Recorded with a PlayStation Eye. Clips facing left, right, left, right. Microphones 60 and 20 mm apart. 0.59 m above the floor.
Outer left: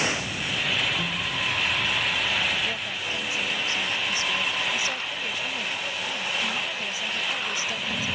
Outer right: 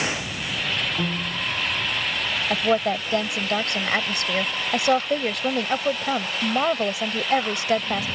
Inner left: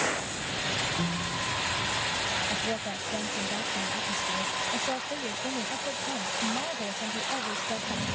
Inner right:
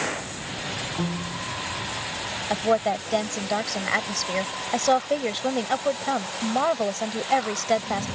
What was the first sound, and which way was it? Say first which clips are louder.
A piano: outer right 2 dB, inner right 1 dB; 45° right (ahead or behind).